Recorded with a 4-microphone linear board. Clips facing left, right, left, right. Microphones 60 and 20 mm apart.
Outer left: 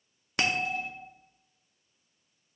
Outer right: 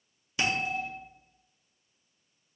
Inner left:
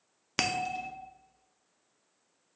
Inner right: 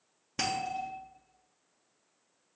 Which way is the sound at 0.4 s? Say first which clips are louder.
Even, inner left 2 dB; 65° left (ahead or behind).